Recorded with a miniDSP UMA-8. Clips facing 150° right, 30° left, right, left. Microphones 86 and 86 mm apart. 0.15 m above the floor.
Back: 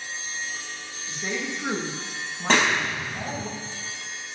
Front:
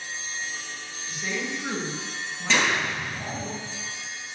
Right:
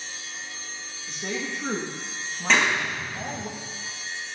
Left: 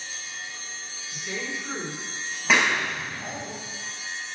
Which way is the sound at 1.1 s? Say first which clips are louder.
Even, right 2 dB; 85° right.